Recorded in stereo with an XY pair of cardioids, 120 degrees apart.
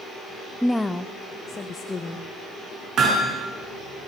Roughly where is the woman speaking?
Ahead.